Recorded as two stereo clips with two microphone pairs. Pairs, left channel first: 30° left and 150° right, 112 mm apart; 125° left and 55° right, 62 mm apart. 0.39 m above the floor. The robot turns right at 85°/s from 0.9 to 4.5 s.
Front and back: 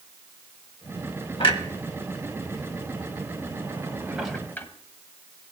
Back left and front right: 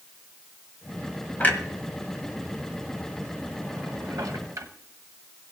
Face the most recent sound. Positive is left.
turn(degrees=-35)